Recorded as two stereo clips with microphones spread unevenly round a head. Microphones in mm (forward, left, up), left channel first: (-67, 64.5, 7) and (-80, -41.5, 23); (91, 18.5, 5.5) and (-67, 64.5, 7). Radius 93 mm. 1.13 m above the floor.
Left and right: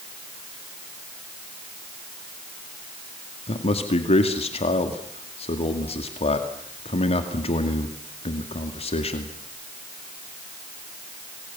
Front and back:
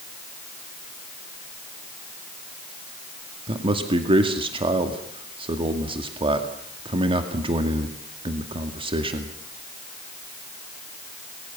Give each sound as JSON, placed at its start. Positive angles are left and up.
{"t": 3.5, "sound": "a man speaking", "azimuth_deg": 105, "distance_m": 2.5}